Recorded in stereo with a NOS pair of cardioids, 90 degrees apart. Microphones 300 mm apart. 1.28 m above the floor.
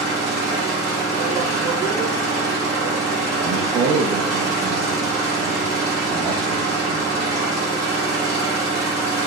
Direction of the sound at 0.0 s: 55° right.